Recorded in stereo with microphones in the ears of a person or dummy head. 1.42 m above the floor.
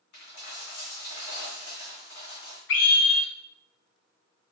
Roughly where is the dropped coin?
Left.